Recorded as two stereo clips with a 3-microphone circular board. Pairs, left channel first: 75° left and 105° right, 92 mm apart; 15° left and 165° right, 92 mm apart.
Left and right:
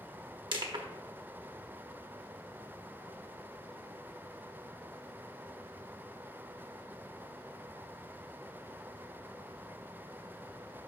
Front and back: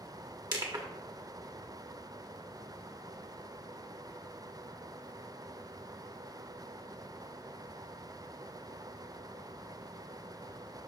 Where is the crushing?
130° right, 1.1 m.